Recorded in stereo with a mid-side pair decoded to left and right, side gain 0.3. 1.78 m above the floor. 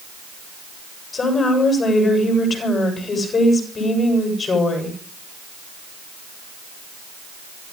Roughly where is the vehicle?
I don't hear a vehicle.